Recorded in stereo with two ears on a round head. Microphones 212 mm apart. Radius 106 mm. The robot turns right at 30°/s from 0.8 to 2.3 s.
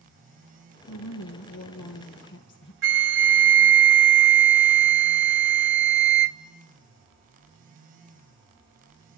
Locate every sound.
0.9 s a woman speaking: 85° left, 1.7 m; by 2.7 s 130° left, 1.7 m
2.8 s a flute: 50° right (ahead or behind), 0.8 m